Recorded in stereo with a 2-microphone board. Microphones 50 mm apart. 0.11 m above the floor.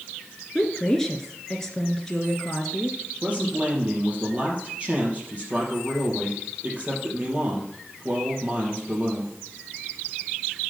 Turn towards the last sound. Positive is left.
turn(degrees=-30)  # may be behind; listen again after turning